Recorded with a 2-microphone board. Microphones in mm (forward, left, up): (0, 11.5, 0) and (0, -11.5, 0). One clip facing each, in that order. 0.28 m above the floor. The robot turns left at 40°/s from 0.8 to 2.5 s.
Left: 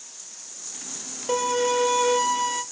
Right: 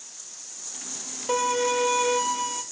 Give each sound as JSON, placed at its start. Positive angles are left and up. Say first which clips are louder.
{"t": 1.3, "sound": "a violin", "louder": "left 1 dB", "azimuth_deg": 165, "distance_m": 0.7}